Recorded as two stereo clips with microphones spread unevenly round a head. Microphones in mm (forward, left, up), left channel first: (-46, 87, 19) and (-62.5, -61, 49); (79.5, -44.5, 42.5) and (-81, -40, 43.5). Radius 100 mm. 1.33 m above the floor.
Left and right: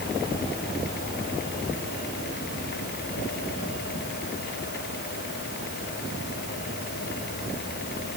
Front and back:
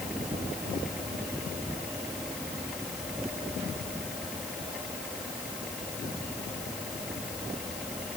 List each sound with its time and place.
Only background noise.